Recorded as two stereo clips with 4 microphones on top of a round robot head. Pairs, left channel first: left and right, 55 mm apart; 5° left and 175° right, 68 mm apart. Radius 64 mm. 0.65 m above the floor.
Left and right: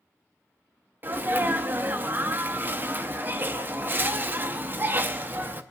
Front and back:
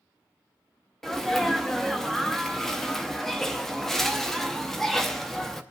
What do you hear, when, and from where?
1.0 s a sneeze: 75° right, 0.7 m